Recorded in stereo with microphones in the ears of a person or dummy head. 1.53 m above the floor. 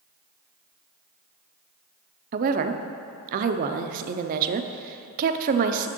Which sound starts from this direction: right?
A woman speaking, at 2.3 s.